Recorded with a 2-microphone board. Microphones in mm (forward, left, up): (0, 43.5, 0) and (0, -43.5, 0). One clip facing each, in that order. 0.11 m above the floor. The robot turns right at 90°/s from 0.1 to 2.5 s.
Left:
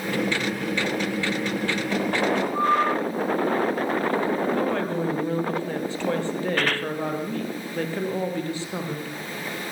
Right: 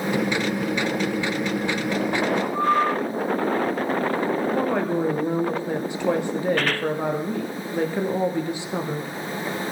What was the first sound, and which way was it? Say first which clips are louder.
A woman speaking: right 2 dB; 15° right (ahead or behind).